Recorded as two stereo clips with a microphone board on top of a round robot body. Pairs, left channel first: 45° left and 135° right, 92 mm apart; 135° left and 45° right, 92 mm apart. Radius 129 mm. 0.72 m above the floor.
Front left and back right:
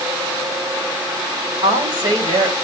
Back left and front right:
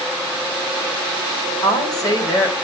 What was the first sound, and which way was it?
A woman speaking, 175° right.